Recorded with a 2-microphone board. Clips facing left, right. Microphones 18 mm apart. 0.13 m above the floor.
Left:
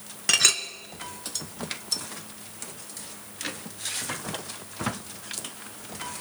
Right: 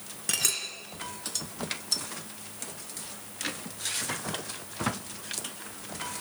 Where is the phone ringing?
No phone ringing in this recording.